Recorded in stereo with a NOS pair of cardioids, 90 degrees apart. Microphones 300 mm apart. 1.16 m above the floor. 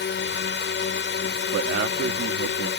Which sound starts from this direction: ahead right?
A man speaking, at 1.5 s.